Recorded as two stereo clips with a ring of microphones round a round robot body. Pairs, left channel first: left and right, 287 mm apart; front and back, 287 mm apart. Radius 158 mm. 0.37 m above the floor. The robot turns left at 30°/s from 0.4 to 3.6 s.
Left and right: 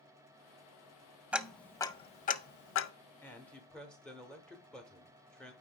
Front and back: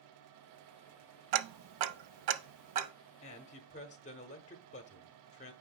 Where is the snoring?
I don't hear snoring.